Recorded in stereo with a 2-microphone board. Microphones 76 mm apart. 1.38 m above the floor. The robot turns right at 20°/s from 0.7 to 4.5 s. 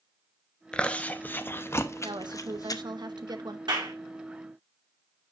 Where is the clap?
70° right (ahead or behind), 2.5 m.